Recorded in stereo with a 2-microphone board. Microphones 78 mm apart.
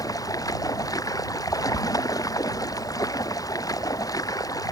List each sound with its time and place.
0.0 s running water: 50° left (ahead or behind)